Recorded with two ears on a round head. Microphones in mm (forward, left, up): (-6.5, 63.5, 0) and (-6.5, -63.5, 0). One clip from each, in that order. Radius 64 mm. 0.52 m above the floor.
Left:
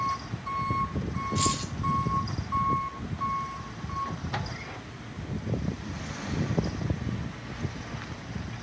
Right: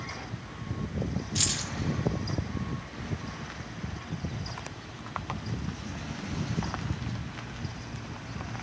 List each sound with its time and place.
1.4 s keys jangling: 85° right, 6.5 m